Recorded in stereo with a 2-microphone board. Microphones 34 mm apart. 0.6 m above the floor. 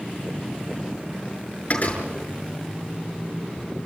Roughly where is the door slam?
Left.